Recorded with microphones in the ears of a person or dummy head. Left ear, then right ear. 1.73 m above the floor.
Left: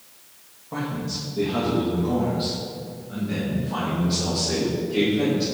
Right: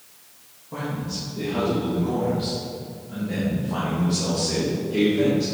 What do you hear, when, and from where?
0.7 s a man speaking: 30° left (ahead or behind), 1.7 m; by 5.5 s 20° right (ahead or behind), 4 m